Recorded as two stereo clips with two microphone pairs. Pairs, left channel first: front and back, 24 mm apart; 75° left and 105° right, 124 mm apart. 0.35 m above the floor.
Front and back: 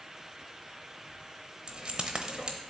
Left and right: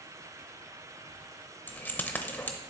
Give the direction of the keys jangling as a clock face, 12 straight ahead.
7 o'clock.